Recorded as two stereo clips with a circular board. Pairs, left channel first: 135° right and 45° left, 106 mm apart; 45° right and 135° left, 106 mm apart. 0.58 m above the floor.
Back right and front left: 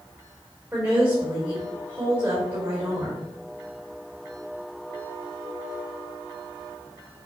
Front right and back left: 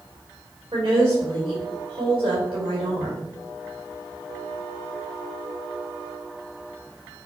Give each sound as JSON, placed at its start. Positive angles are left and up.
{"t": 0.7, "sound": "a woman speaking", "azimuth_deg": 115, "distance_m": 2.5}